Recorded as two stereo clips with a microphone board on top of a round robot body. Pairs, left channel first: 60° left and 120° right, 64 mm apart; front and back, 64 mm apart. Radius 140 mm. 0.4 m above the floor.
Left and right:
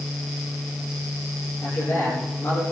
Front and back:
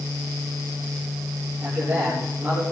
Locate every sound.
1.6 s a man speaking: 110° left, 9.5 m